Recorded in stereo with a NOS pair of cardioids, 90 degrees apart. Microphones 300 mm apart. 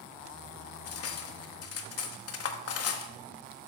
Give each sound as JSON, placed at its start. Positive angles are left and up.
{"t": 0.9, "sound": "cutlery clinking", "azimuth_deg": 55, "distance_m": 1.1}